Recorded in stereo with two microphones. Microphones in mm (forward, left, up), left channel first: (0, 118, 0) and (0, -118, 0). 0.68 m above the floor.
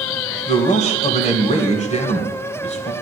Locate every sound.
0.5 s a man speaking: 30° left (ahead or behind), 2.5 m